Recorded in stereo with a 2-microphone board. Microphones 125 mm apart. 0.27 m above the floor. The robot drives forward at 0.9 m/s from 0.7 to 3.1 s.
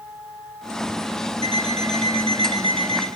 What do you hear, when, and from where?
1.4 s an alarm clock: 60° right (ahead or behind), 8.5 m; by 3.1 s 55° right (ahead or behind), 9.5 m